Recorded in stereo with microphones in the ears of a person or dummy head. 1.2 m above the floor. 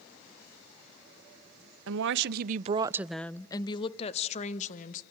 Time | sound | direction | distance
1.9 | a woman speaking | 75° right (ahead or behind) | 0.8 m